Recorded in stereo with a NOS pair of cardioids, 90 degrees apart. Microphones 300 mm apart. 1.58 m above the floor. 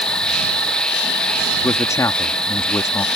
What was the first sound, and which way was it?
An insect, 5° left.